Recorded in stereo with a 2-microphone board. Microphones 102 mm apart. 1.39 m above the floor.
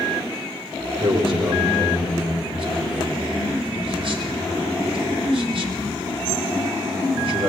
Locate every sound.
1.0 s a man speaking: 60° right (ahead or behind), 4 m